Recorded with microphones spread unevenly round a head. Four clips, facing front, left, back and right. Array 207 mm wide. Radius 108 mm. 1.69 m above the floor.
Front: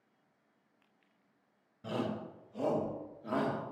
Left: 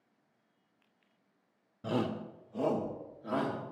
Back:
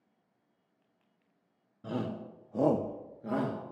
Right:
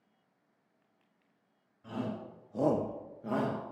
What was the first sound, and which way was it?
A shout, 90° left.